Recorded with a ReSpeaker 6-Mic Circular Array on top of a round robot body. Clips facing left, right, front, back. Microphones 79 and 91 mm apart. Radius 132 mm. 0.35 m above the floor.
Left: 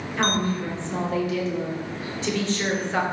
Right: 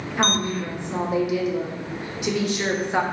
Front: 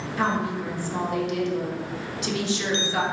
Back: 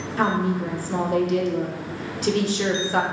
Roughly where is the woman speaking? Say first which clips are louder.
Even, back 3 dB; behind.